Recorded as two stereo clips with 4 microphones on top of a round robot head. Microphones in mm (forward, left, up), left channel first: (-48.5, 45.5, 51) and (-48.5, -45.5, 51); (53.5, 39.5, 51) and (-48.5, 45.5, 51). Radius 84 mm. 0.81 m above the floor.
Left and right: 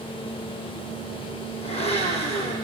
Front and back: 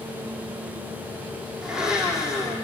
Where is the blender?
95° left, 7 m.